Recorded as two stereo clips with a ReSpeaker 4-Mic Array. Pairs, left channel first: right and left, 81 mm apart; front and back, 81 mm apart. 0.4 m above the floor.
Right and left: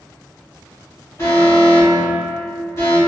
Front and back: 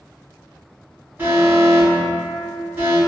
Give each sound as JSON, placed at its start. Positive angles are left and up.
{"t": 1.2, "sound": "an alarm", "azimuth_deg": -125, "distance_m": 1.3}